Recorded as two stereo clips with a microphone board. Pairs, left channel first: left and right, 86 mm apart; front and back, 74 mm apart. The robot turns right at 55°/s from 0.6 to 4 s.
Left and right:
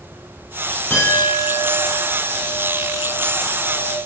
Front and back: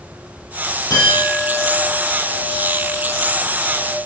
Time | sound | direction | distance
0.9 | a clink | 25° left | 3 m